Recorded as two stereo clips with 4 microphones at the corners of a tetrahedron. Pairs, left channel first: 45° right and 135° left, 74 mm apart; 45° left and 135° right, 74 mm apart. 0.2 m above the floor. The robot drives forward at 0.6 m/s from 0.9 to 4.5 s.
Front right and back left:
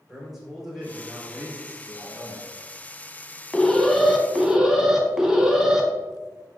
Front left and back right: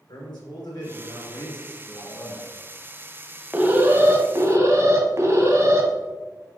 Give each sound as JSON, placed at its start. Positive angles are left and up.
{"t": 0.1, "sound": "a man speaking", "azimuth_deg": 50, "distance_m": 3.0}
{"t": 1.9, "sound": "a man speaking", "azimuth_deg": 15, "distance_m": 2.5}
{"t": 3.5, "sound": "an alarm", "azimuth_deg": -100, "distance_m": 1.0}